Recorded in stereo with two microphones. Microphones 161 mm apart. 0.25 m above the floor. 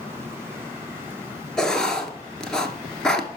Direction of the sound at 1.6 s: 5° left (ahead or behind).